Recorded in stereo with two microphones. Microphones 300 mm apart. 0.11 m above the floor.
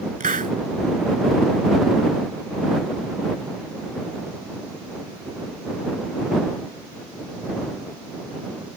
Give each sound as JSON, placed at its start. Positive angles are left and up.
{"t": 0.2, "sound": "a hiss", "side_deg": -30}